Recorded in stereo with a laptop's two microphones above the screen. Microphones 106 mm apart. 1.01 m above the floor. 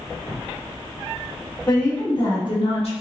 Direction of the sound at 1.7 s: 25° left (ahead or behind).